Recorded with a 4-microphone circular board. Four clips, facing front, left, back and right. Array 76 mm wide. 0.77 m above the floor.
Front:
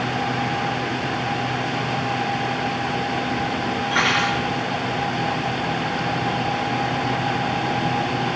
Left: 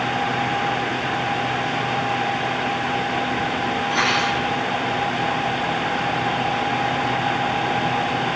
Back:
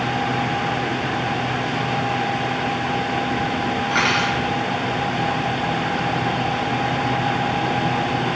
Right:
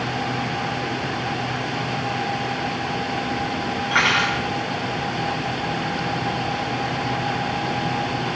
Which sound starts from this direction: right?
Cutlery clinking, at 3.9 s.